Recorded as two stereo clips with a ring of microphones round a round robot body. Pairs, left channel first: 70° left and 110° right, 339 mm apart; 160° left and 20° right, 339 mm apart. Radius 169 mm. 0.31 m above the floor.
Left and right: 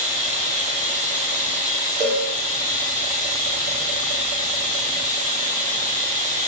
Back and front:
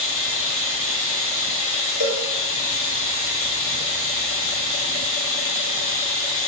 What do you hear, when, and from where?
0.0 s running water: 110° left, 2.5 m
2.0 s a cowbell: 170° left, 4 m